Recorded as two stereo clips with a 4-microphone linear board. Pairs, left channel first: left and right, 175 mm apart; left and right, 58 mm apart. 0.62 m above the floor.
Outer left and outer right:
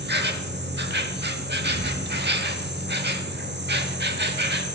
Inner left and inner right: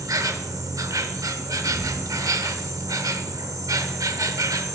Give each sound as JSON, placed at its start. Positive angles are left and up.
{"t": 0.0, "sound": "an insect", "side_deg": -80, "distance_m": 0.8}